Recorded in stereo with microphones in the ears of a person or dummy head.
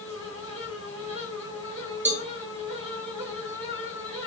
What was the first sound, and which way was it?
A fan, 30° right (ahead or behind).